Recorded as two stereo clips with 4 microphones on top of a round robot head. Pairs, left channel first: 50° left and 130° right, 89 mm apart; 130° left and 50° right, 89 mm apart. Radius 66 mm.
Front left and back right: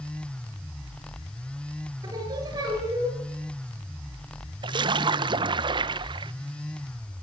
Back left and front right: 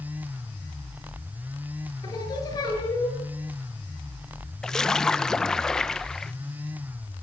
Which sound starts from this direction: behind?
Singing, at 2.0 s.